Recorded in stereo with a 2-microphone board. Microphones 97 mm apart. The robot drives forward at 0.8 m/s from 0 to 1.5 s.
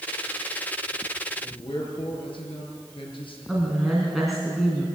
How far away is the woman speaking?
About 3 m.